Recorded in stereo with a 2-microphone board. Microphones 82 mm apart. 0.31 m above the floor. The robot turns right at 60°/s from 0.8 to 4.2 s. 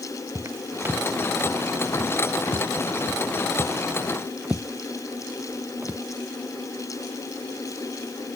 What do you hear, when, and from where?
0.3 s footsteps: 35° right (ahead or behind); by 6.0 s 25° right (ahead or behind)